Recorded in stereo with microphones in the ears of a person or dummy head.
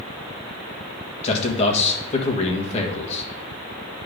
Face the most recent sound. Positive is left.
turn(degrees=35)  # may be behind; listen again after turning